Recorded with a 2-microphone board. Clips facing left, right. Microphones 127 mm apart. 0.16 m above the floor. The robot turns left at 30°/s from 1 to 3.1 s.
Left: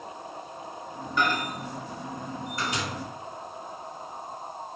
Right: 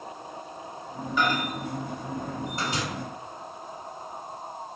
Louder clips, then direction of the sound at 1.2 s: Right 1 dB; 10° right (ahead or behind).